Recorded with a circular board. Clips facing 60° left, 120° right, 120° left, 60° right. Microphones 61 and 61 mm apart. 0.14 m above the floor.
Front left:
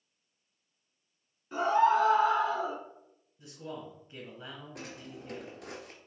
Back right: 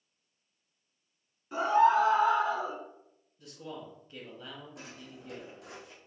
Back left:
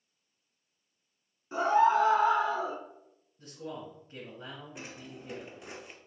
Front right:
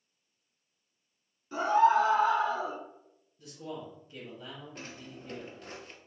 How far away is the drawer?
About 0.7 m.